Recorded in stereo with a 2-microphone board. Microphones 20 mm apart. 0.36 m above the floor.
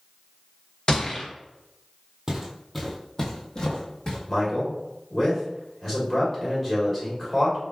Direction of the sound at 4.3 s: 25° left (ahead or behind).